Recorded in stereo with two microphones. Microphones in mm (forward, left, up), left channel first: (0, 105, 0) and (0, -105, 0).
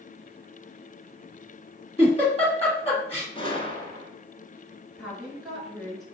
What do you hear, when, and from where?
2.0 s a giggle: 30° left (ahead or behind), 1.6 m
3.4 s a gunshot: 25° left (ahead or behind), 0.8 m
5.0 s a woman speaking: centre (ahead or behind), 1.7 m